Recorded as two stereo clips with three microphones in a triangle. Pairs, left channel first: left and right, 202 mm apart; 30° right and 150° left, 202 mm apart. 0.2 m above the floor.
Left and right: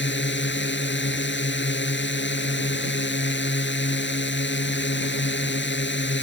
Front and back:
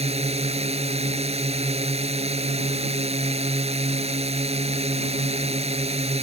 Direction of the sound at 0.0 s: 95° left.